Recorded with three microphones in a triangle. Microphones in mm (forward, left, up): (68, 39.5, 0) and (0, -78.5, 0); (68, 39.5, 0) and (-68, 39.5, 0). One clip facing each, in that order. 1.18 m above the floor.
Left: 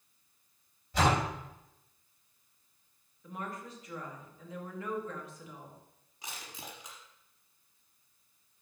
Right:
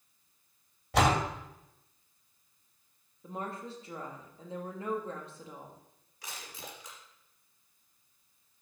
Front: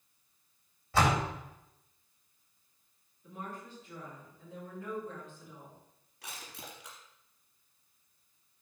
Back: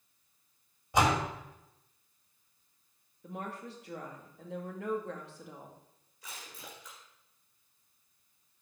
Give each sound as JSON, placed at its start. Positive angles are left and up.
{"t": 0.9, "sound": "a door slam", "azimuth_deg": -110, "distance_m": 2.5}
{"t": 3.2, "sound": "a woman speaking", "azimuth_deg": 180, "distance_m": 2.0}
{"t": 6.2, "sound": "crushing", "azimuth_deg": -10, "distance_m": 4.5}